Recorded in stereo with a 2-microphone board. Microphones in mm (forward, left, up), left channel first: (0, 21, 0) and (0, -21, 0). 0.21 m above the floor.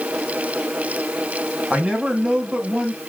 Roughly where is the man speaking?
Right.